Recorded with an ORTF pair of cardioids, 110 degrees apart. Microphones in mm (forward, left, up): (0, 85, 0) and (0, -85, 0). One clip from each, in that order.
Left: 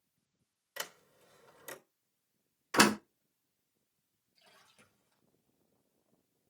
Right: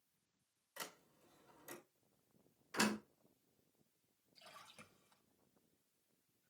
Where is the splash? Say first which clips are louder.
Right 4 dB; 30° right, 3 m.